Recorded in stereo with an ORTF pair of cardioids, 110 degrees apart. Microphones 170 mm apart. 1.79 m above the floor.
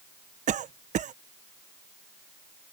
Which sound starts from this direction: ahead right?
A cough, at 0.5 s.